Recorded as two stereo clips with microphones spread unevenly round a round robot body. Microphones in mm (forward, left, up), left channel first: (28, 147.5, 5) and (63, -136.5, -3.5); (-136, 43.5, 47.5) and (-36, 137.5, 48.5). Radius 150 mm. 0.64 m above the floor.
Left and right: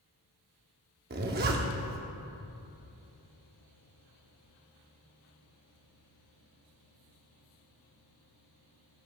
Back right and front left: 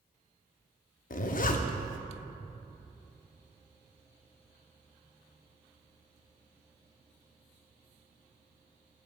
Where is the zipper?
140° right, 0.7 m.